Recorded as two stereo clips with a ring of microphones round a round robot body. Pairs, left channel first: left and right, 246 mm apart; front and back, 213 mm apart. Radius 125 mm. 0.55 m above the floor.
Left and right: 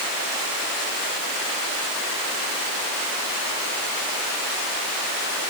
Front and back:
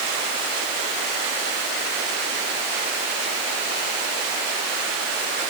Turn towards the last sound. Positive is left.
No sound to turn to.